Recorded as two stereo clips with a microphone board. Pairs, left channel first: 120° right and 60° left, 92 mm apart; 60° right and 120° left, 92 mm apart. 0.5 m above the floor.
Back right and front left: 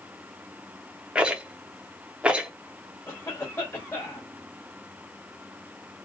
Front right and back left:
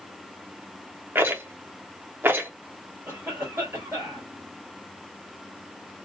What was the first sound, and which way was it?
A rattle, 120° left.